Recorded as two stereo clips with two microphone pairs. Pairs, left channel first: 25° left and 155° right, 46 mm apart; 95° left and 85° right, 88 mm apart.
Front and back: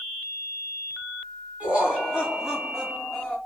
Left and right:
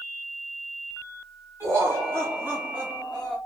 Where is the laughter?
110° right, 1.8 m; by 3.4 s 10° right, 1.4 m.